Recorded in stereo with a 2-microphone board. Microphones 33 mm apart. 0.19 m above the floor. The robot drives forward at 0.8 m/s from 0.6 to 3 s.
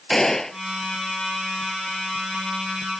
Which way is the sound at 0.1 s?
10° left (ahead or behind).